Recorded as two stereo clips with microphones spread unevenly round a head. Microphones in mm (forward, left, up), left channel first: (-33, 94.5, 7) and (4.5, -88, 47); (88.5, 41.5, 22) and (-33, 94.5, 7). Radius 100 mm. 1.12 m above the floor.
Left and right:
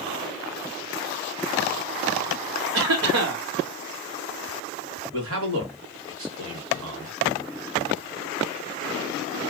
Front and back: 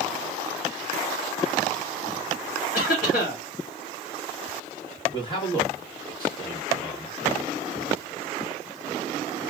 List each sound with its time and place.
2.7 s a cough: 65° right, 1.6 m
5.1 s a man speaking: 95° right, 1.4 m